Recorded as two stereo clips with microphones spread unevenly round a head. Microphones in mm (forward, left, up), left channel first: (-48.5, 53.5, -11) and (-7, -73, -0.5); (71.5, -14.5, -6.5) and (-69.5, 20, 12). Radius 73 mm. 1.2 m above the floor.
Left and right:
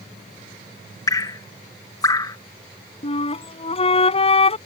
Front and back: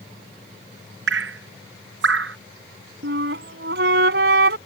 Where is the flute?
155° left.